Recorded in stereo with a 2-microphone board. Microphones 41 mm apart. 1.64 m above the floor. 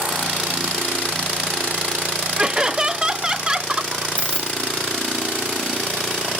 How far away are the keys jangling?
About 1.8 m.